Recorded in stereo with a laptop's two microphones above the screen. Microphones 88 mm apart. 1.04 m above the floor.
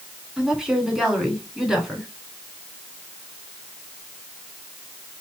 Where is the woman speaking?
5° right (ahead or behind), 3 m.